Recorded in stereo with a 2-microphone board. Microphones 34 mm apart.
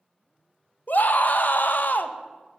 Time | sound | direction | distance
0.9 | a scream | 60° left (ahead or behind) | 0.6 m